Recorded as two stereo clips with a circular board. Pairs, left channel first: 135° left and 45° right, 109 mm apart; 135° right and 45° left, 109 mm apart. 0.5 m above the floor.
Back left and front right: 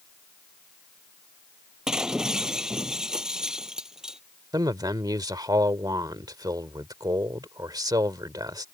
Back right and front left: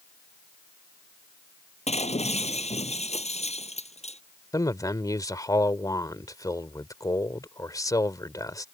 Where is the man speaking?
90° right.